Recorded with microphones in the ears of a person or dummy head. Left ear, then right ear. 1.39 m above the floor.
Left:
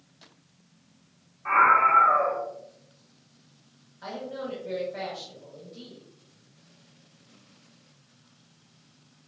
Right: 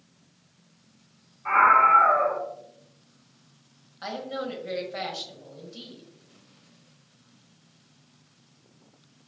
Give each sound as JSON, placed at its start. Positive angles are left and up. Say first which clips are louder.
{"t": 1.4, "sound": "a scream", "louder": "right 2 dB", "side_deg": 5, "distance_m": 1.3}
{"t": 4.0, "sound": "a woman speaking", "louder": "right 3 dB", "side_deg": -45, "distance_m": 1.1}